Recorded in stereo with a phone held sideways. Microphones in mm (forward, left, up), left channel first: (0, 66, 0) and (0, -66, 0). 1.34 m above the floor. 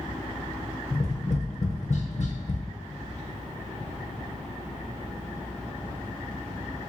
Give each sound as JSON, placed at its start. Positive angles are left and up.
{"t": 0.9, "sound": "tapping", "side_deg": 60, "distance_m": 0.7}